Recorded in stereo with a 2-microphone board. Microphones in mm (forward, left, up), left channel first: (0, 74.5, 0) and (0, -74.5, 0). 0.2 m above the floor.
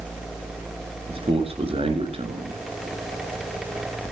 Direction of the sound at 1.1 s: 40° right (ahead or behind).